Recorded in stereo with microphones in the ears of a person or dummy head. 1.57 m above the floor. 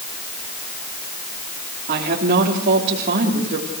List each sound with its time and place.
1.9 s a woman speaking: 40° right (ahead or behind), 3.5 m